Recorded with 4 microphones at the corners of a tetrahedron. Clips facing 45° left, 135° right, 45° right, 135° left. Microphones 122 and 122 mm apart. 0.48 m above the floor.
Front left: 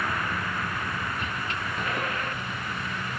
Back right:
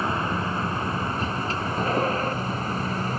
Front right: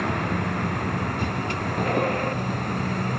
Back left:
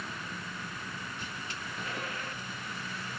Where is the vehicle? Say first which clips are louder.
Back right 4 dB, front right 16 dB; 70° right; by 3.2 s 80° right.